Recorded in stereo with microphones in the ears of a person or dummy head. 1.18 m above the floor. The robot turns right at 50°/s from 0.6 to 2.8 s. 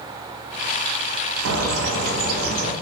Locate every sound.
1.4 s a bird: 95° right, 0.8 m; by 2.7 s 35° right, 0.8 m